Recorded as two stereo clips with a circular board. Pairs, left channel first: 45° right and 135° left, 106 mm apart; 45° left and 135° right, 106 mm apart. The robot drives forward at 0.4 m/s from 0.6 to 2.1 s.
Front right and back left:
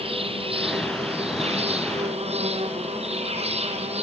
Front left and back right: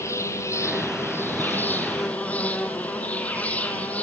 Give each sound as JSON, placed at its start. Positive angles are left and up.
{"t": 0.0, "sound": "an insect", "azimuth_deg": 110, "distance_m": 2.0}